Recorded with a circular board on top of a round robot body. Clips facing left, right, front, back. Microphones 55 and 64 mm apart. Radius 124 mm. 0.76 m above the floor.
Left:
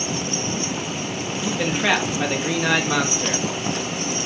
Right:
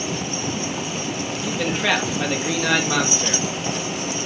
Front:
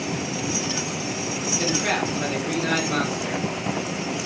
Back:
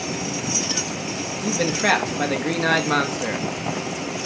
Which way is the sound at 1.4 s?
175° left.